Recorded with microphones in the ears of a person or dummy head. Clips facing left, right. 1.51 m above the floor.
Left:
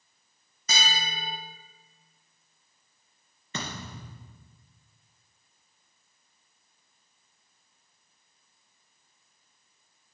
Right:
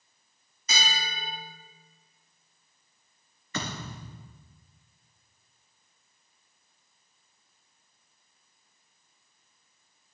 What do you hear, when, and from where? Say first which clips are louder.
0.7 s a bell: left 1 dB; 50° left (ahead or behind), 3 m
3.5 s a thud: right 2 dB; 30° left (ahead or behind), 3.5 m